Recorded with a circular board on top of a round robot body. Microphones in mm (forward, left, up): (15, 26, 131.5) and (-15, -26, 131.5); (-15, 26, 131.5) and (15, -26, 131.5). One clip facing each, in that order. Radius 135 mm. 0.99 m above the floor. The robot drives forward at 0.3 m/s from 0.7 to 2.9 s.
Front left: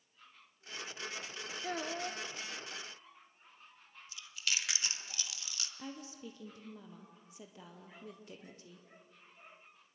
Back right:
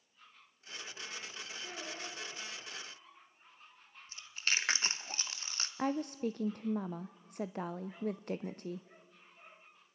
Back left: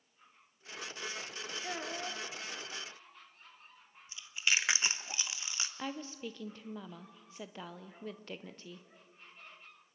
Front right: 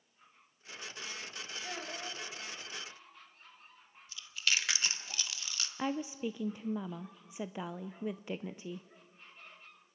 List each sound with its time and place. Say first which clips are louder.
1.6 s a child speaking: front left 8 dB, back left 3 dB; 45° left, 0.9 m; by 2.2 s 50° left, 0.8 m
4.1 s chewing: back right 3 dB, back left 1 dB; 170° right, 1.0 m
5.8 s a woman speaking: back right 14 dB, front right 8 dB; 135° right, 0.6 m